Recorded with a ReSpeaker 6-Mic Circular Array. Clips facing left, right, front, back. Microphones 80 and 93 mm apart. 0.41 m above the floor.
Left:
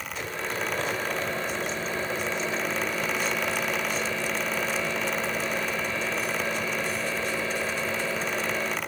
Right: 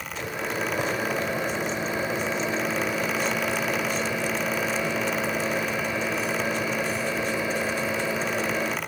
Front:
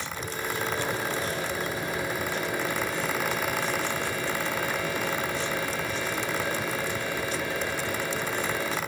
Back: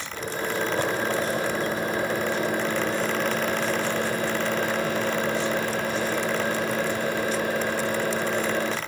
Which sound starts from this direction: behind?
A microwave, at 0.1 s.